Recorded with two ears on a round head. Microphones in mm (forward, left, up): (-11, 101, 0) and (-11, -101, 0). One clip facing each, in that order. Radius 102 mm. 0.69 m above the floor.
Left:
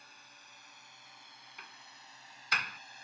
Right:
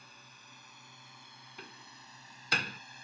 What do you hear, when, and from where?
0.0 s a drone: 65° right (ahead or behind); by 3.0 s 80° right
1.6 s a door slam: 25° right (ahead or behind)